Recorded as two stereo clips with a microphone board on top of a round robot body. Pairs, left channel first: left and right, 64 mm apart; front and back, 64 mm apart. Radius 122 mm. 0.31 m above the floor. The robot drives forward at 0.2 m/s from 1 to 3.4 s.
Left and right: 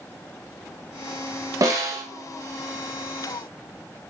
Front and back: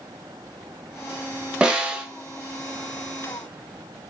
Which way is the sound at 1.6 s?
105° right.